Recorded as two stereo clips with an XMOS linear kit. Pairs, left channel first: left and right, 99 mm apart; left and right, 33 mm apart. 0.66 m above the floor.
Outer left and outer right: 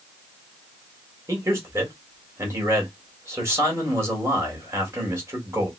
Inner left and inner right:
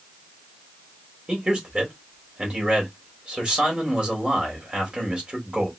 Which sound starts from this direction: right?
A man speaking, at 1.3 s.